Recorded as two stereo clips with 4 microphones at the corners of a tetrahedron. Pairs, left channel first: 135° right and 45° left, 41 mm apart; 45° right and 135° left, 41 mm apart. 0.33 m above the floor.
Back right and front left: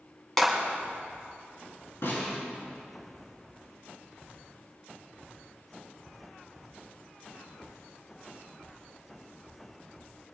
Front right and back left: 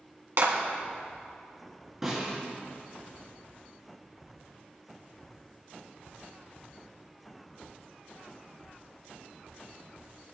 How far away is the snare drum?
About 5 m.